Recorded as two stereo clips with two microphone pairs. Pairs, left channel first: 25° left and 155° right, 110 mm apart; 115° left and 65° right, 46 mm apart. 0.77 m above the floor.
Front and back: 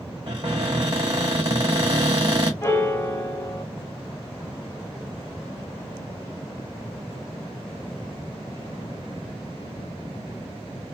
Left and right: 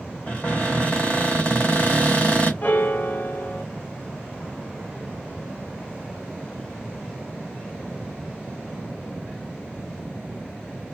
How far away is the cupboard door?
About 1.5 m.